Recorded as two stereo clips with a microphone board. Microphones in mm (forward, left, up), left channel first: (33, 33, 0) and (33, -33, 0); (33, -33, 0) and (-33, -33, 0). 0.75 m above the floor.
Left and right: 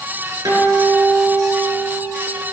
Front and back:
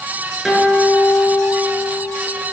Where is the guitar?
90° right, 7.5 m.